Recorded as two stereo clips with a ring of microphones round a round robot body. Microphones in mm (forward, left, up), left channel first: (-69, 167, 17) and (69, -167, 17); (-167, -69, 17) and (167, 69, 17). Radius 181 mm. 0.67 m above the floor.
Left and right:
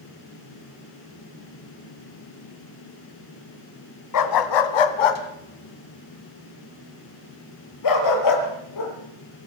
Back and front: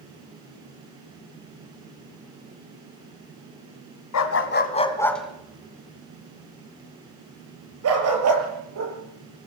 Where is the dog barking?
155° left, 1.9 m; by 8.9 s 70° left, 6.5 m.